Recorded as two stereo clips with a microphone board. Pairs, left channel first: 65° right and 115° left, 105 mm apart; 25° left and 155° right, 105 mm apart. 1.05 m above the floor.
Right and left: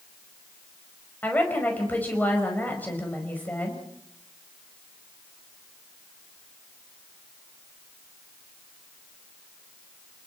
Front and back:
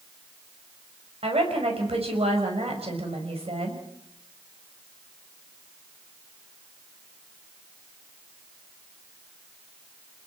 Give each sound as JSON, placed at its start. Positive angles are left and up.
{"t": 1.2, "sound": "a woman speaking", "azimuth_deg": -140, "distance_m": 5.0}